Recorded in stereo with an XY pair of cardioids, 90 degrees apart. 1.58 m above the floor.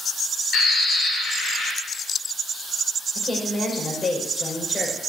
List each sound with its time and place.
0.5 s a bird: 65° left, 8.5 m
3.1 s a woman speaking: 35° left, 5 m